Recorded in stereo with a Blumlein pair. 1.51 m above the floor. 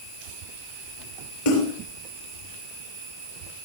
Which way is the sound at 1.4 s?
55° left.